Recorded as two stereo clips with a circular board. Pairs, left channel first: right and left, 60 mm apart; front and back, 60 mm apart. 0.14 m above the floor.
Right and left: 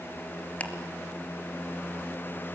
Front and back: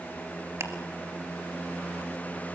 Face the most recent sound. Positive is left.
turn(degrees=-155)